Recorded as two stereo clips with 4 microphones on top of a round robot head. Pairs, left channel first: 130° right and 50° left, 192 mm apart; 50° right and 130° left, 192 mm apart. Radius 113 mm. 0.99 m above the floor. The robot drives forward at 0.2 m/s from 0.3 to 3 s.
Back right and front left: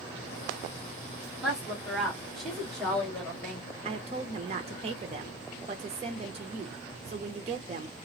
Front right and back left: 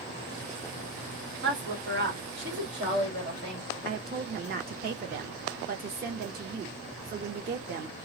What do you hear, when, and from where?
1.4 s a woman speaking: 135° left, 1.3 m; by 3.6 s 145° left, 1.5 m
3.8 s a woman speaking: 105° left, 0.5 m